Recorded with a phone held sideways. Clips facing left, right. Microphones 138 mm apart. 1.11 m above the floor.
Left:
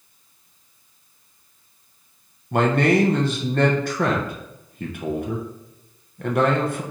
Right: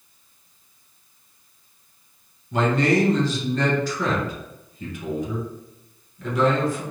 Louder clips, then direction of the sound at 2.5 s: Left 2 dB; 60° left (ahead or behind).